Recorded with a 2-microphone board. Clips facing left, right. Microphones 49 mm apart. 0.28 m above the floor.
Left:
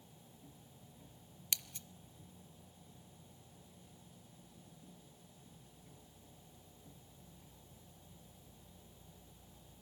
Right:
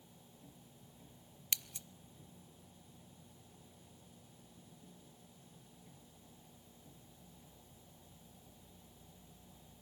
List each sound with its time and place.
1.5 s scissors: 5° right (ahead or behind), 0.9 m